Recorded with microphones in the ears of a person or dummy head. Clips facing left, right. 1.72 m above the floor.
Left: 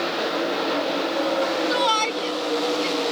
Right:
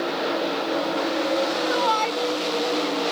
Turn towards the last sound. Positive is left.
turn(degrees=45)  # may be behind; listen again after turning